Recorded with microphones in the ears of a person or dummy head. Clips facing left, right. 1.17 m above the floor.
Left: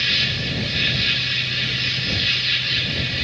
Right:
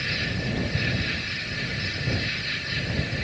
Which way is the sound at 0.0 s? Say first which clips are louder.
Even; 75° left (ahead or behind).